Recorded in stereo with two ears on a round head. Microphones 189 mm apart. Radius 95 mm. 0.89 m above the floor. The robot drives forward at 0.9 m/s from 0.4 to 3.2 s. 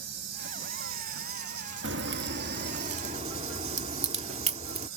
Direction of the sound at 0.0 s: 55° right (ahead or behind).